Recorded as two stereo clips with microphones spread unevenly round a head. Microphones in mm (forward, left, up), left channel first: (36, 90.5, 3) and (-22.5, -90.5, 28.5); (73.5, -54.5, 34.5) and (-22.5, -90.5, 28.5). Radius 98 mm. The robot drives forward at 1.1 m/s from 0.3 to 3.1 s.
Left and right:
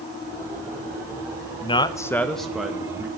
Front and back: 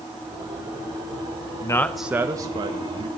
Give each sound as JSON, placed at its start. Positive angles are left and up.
{"t": 1.6, "sound": "a man speaking", "azimuth_deg": 50, "distance_m": 0.7}